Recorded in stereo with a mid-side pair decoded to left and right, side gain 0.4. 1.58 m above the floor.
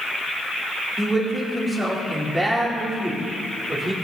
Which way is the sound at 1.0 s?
30° right.